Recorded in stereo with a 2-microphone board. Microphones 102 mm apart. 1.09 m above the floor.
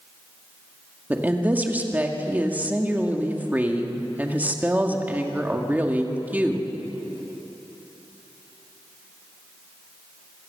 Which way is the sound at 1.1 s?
15° right (ahead or behind).